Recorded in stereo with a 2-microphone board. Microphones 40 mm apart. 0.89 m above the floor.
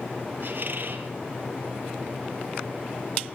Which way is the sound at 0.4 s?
50° right (ahead or behind).